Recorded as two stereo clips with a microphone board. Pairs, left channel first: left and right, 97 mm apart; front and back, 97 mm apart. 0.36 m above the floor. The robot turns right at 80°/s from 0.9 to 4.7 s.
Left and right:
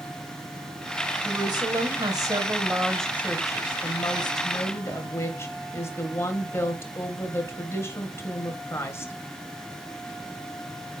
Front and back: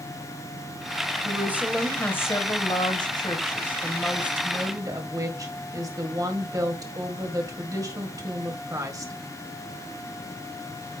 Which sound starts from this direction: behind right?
A woman speaking, at 1.2 s.